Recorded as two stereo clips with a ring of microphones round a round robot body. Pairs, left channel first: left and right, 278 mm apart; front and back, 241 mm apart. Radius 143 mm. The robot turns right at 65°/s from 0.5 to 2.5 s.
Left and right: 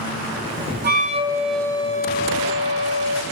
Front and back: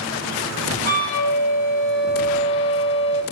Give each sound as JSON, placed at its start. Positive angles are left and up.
{"t": 0.8, "sound": "a flute", "azimuth_deg": -45, "distance_m": 1.5}